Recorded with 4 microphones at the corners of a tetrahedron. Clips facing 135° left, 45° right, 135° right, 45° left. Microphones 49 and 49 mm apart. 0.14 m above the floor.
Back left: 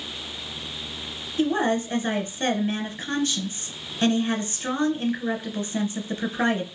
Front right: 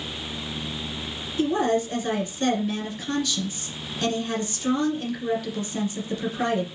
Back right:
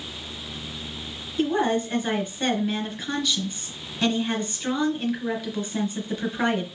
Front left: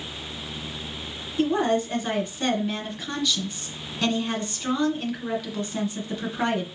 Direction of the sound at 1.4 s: 130° left.